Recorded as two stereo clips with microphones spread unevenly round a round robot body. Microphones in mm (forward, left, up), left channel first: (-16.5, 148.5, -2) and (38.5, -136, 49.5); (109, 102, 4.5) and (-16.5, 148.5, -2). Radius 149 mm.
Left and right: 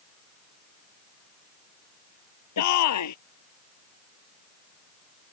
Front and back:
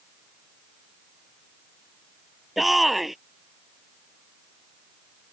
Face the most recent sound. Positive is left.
turn(degrees=70)